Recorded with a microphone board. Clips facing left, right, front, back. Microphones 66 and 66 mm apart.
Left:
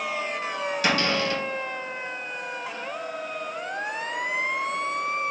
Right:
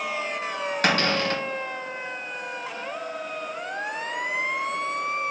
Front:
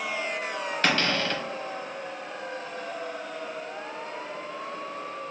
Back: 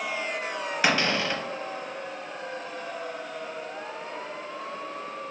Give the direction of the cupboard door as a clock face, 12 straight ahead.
3 o'clock.